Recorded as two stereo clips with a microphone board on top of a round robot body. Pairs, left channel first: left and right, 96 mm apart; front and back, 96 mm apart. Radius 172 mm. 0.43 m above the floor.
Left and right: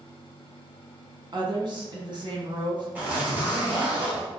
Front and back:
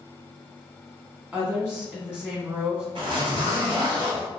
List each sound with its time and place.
1.3 s a woman speaking: 110° right, 1.3 m
3.0 s a zipper: 160° right, 1.5 m